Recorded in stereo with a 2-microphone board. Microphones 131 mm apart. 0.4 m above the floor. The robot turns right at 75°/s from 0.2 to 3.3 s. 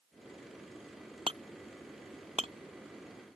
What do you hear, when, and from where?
1.3 s hammering: 45° right (ahead or behind); by 2.5 s 40° right (ahead or behind)